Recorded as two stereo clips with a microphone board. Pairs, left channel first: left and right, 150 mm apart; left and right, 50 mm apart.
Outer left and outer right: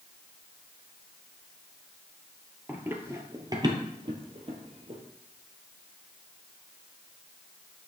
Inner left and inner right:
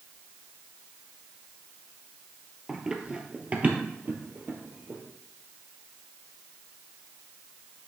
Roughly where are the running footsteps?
Centre.